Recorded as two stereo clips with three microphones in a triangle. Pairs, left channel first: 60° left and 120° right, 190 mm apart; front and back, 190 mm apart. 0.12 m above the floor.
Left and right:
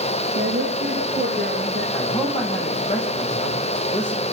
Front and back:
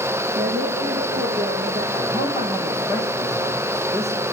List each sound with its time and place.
0.3 s a woman speaking: 155° right, 5 m
1.9 s a man speaking: 125° left, 7.5 m